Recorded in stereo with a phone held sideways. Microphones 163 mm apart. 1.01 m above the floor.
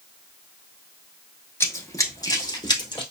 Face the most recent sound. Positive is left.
turn(degrees=30)  # may be behind; listen again after turning